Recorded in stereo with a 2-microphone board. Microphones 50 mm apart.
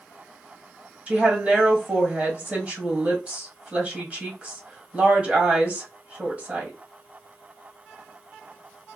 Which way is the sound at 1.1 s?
20° right (ahead or behind).